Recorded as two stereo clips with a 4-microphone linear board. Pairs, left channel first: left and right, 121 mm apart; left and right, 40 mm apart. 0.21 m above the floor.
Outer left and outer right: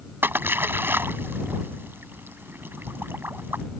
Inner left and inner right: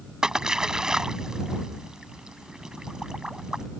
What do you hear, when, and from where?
0.2 s a splash: 20° right (ahead or behind)